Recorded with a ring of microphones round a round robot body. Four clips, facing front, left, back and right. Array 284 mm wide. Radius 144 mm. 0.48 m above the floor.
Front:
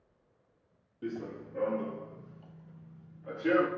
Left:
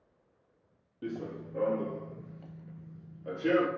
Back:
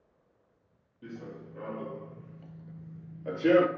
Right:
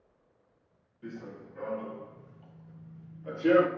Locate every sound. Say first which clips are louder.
1.0 s running footsteps: left 5 dB, front 5 dB; 65° left, 1.2 m; by 3.7 s 175° right, 0.9 m